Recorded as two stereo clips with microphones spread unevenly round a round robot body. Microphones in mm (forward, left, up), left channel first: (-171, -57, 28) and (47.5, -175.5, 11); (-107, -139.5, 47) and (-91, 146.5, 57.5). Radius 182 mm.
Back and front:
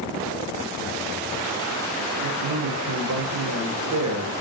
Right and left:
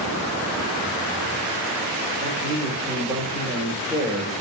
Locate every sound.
2.2 s a man speaking: straight ahead, 2.5 m